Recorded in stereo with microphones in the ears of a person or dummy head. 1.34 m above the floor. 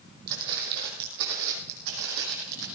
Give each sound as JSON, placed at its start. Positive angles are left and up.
{"t": 0.3, "sound": "footsteps", "side_deg": -60, "distance_m": 2.5}